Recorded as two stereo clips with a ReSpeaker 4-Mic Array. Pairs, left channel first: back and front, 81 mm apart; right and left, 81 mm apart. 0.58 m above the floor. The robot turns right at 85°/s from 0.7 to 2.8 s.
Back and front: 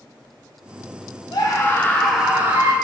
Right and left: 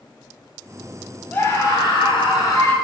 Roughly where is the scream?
Behind.